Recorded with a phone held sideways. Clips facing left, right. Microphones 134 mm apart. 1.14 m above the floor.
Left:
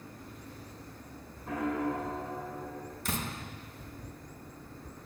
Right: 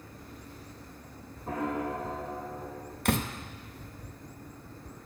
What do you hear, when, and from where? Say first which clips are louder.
1.5 s a piano: even; 30° right (ahead or behind), 3 m
3.0 s a door slam: right 9 dB; 65° right (ahead or behind), 0.7 m